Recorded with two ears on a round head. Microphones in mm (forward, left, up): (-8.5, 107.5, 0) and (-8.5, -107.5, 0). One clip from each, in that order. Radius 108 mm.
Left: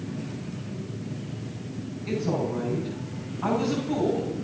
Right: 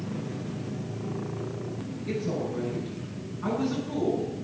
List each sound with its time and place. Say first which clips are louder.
2.1 s a woman speaking: left 3 dB; 55° left (ahead or behind), 7 m